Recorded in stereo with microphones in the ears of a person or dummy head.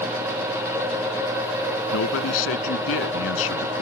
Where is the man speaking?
80° left.